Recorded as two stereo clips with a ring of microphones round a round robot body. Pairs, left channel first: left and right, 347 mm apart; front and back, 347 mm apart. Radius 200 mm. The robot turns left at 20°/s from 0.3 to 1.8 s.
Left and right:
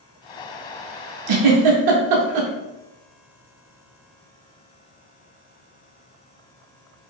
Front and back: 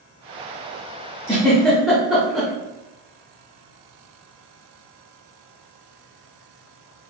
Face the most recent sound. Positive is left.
turn(degrees=-90)